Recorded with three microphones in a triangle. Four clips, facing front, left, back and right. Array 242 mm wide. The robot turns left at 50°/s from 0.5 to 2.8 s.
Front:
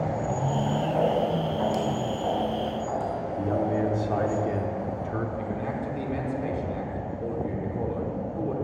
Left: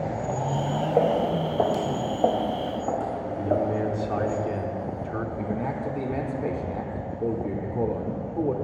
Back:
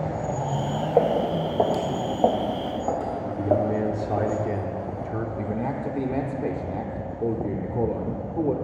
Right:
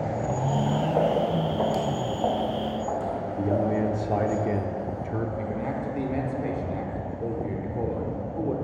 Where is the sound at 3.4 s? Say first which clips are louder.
Even, back 3 dB; 110° right, 0.7 m.